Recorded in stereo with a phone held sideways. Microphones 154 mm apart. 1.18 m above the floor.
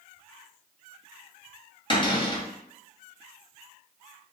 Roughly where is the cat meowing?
I don't hear a cat meowing.